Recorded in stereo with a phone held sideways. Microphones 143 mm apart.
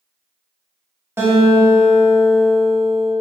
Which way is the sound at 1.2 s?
15° right (ahead or behind).